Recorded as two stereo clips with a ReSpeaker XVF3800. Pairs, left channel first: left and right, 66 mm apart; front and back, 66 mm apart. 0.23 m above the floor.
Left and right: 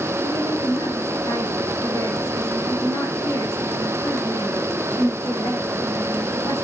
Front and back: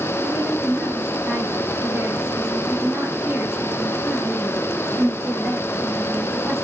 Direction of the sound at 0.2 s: 120° left.